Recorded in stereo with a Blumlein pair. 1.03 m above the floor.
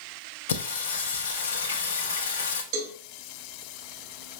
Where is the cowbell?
45° right, 0.9 m.